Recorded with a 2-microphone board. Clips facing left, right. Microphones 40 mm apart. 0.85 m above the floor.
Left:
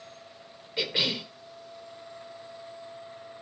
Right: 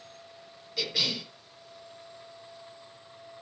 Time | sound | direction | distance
0.8 | a cough | 30° left (ahead or behind) | 0.9 m